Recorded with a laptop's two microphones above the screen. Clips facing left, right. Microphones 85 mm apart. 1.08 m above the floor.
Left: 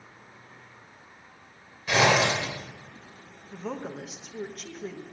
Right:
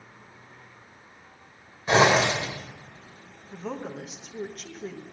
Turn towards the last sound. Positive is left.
turn(degrees=0)  # may be behind; listen again after turning